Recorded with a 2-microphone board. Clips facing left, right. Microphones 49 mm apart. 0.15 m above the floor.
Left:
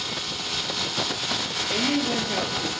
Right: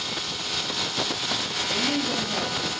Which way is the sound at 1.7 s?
55° left (ahead or behind).